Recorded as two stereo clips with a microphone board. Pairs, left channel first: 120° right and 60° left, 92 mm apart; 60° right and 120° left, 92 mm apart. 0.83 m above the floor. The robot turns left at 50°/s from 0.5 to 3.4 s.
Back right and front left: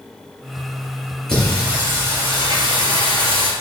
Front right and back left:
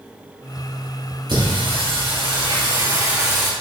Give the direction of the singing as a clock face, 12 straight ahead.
7 o'clock.